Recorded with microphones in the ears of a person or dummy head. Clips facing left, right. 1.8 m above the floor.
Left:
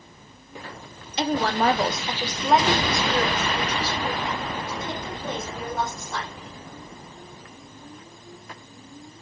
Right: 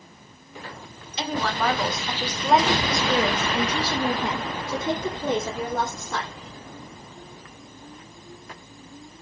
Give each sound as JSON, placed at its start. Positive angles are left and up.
{"t": 1.2, "sound": "a woman speaking", "side_deg": 45, "distance_m": 1.5}